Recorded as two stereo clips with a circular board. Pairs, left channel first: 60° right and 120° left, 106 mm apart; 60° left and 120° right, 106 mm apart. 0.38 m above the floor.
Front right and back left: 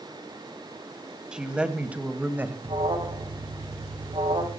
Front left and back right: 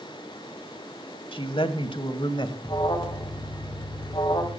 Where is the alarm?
100° left, 2.5 m.